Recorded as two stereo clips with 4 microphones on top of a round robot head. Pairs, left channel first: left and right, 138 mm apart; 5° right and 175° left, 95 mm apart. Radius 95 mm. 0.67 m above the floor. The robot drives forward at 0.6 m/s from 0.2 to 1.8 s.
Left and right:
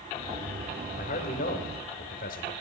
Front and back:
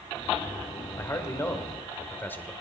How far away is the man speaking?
About 2.5 m.